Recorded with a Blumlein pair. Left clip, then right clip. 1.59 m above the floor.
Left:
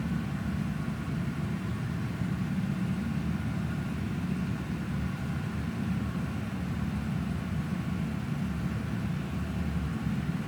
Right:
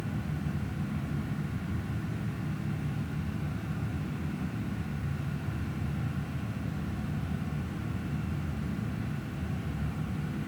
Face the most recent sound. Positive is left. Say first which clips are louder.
# left 2 dB
turn(degrees=60)